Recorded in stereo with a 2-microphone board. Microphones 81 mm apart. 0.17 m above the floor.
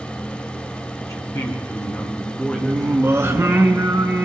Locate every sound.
1.0 s a man speaking: 40° left (ahead or behind), 1.7 m; by 3.6 s 5° right (ahead or behind), 2.5 m
2.6 s singing: 35° right (ahead or behind), 1.1 m